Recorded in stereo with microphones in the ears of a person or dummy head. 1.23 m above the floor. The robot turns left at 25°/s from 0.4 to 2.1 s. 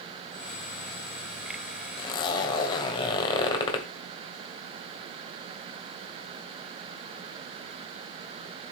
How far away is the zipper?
About 1.8 m.